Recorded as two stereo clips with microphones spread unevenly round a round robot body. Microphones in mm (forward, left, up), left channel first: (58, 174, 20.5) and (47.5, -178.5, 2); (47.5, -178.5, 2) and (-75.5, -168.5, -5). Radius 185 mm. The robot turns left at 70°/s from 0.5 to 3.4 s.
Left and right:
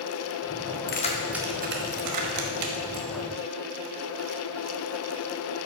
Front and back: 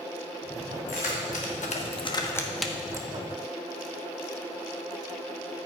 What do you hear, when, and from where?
0.9 s keys jangling: 25° left, 1.0 m; by 3.1 s 125° right, 1.0 m